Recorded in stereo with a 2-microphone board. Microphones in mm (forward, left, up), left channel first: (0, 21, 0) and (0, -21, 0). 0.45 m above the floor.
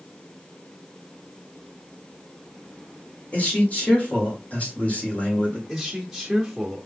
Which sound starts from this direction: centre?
A man speaking, at 5.7 s.